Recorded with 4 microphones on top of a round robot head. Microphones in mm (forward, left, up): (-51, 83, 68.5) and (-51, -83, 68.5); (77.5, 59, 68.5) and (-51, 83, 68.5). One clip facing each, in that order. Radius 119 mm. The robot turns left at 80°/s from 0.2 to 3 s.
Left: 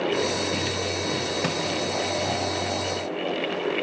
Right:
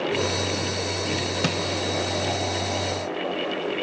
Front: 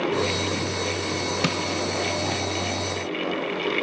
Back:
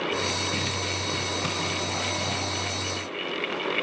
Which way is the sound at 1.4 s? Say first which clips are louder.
Right 3 dB, front 6 dB; 25° right.